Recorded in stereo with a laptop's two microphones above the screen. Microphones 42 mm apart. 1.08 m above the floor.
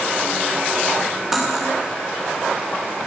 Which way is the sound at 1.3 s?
Centre (ahead or behind).